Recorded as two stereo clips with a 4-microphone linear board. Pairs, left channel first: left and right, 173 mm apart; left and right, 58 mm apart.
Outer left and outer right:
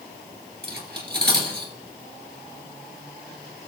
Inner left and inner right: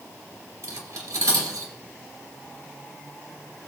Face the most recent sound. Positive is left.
turn(degrees=-70)  # may be behind; listen again after turning